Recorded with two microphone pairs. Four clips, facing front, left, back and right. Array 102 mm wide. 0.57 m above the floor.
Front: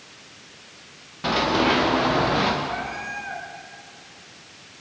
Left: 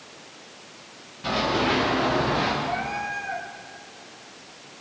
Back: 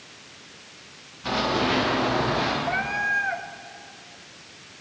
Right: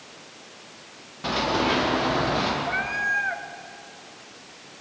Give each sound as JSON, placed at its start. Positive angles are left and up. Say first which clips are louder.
{"t": 1.2, "sound": "running footsteps", "louder": "even, front 3 dB", "azimuth_deg": -20, "distance_m": 9.5}
{"t": 2.6, "sound": "a cat meowing", "louder": "right 1 dB, back 4 dB", "azimuth_deg": -115, "distance_m": 1.8}